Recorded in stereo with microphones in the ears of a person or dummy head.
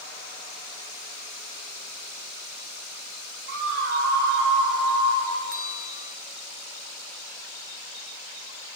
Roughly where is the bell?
Right.